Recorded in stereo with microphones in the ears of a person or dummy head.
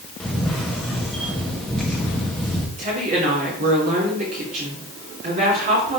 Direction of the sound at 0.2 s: 5° left (ahead or behind).